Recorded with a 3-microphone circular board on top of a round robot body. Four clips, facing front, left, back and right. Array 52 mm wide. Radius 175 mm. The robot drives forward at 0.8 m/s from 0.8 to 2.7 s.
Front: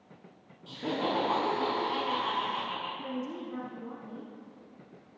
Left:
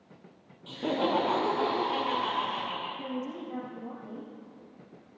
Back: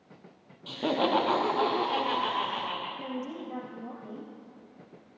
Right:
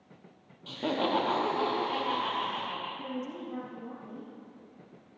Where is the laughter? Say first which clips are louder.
Left 1 dB, back 5 dB; 155° right, 1.2 m; by 2.9 s 175° right, 2.5 m.